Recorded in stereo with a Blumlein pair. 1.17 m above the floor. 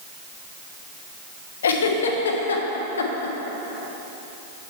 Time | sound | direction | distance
1.6 | a giggle | 65° left | 0.9 m